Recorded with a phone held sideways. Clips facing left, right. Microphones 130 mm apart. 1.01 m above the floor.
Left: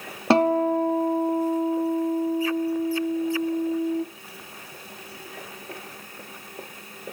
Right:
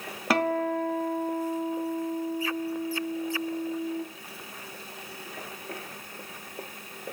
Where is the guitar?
25° left (ahead or behind), 0.8 m.